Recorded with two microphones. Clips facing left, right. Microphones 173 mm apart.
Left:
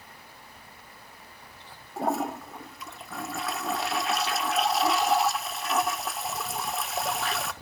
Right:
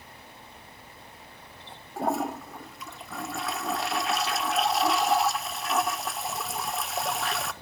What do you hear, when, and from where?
2.0 s a toilet flushing: centre (ahead or behind), 0.7 m